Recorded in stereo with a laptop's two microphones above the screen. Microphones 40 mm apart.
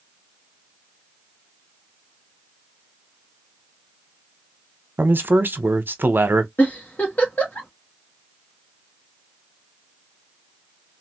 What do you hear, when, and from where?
5.0 s a man speaking: 60° right (ahead or behind), 0.8 m
6.6 s a giggle: 45° left (ahead or behind), 1.5 m